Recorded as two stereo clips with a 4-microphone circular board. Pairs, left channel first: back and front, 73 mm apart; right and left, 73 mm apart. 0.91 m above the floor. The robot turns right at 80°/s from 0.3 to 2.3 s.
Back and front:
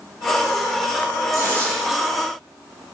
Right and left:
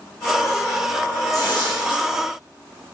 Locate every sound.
1.3 s tearing paper: 135° right, 8 m; by 2.0 s 75° right, 8 m